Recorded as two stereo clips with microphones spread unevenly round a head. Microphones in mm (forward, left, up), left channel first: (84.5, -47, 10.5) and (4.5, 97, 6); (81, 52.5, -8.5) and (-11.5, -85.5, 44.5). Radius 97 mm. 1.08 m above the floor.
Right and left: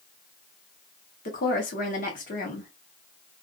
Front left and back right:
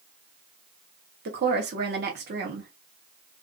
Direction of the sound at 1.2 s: 95° right.